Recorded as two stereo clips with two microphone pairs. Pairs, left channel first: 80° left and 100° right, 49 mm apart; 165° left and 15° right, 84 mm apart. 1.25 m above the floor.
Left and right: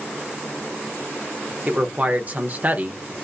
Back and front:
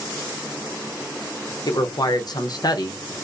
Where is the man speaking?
155° right, 0.8 m.